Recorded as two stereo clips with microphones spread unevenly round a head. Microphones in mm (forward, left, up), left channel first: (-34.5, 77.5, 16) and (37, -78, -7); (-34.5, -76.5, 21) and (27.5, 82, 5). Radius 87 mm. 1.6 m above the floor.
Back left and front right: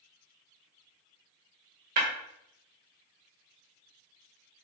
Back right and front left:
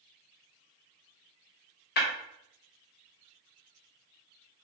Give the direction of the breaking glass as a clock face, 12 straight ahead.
3 o'clock.